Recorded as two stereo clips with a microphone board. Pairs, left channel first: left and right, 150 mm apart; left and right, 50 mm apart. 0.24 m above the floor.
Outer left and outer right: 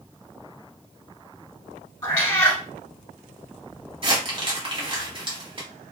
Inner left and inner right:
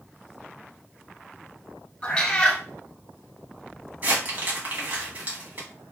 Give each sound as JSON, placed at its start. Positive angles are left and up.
{"t": 2.0, "sound": "a cat meowing", "side_deg": 20, "distance_m": 1.0}
{"t": 4.0, "sound": "crumpling", "side_deg": -40, "distance_m": 1.2}